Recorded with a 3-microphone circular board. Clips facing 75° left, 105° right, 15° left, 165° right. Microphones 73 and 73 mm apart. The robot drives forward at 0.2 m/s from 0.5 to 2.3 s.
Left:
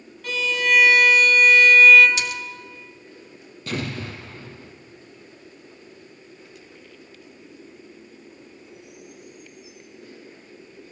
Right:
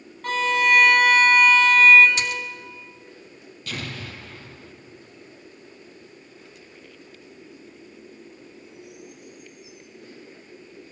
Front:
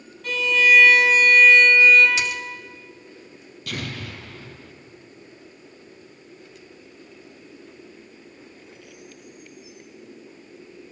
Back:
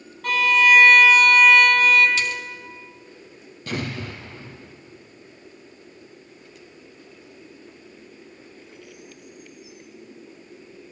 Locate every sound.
0.2 s a violin: 140° right, 1.0 m; by 2.1 s 150° right, 1.2 m
2.2 s a splash: 55° right, 0.6 m; by 2.4 s 60° right, 0.6 m
3.7 s an explosion: 135° left, 1.5 m